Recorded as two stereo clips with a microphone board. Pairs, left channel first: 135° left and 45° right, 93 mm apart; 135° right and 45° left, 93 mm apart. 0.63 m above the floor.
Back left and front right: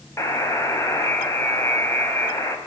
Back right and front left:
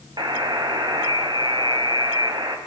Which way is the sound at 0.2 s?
80° left.